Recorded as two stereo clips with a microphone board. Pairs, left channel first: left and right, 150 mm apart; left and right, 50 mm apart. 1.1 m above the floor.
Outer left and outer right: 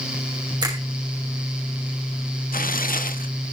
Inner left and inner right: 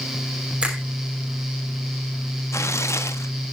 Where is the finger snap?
25° right (ahead or behind), 5.5 m.